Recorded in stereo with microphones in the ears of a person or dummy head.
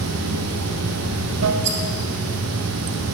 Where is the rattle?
55° right (ahead or behind), 0.9 m.